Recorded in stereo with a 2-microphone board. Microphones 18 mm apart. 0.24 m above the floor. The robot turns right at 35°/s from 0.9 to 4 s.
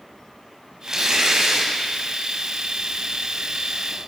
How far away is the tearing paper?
About 0.9 m.